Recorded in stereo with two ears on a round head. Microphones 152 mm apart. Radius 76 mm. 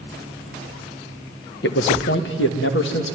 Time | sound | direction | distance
1.6 | a man speaking | 70° left (ahead or behind) | 1.2 m